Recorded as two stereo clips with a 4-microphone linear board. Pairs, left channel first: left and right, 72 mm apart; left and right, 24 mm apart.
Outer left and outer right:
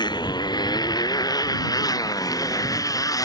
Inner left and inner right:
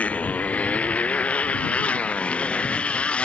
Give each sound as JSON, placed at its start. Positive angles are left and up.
{"t": 0.0, "sound": "a motorcycle", "side_deg": 80}